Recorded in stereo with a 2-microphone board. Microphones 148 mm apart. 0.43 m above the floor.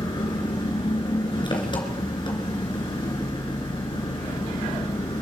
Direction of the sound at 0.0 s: 35° left (ahead or behind).